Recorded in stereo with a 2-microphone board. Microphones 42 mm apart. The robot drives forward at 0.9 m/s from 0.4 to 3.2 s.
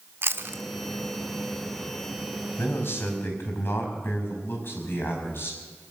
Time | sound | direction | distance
0.2 | chewing | 65° right (ahead or behind) | 1.0 m
2.6 | a man speaking | 60° left (ahead or behind) | 4.5 m